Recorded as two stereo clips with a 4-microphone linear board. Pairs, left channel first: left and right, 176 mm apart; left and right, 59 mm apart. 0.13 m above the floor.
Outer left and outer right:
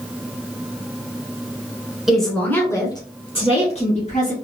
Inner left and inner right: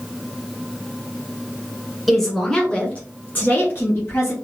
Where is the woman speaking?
Centre (ahead or behind), 1.2 m; by 4.3 s 45° left (ahead or behind), 1.7 m.